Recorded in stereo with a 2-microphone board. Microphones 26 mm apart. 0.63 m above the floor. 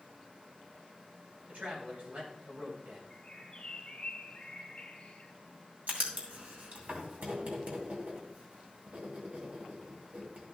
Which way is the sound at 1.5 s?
65° right (ahead or behind).